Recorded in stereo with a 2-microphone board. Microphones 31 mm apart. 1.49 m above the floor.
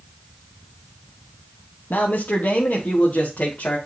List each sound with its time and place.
1.9 s a man speaking: 80° left, 1.0 m; by 3.8 s 55° left (ahead or behind), 2 m